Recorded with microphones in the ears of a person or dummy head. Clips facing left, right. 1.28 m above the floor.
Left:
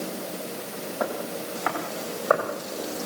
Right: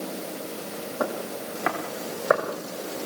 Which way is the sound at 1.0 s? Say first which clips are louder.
Even; 35° right (ahead or behind).